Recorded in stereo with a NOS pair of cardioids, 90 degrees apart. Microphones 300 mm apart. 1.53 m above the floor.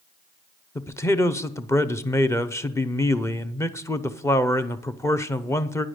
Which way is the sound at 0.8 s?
10° left.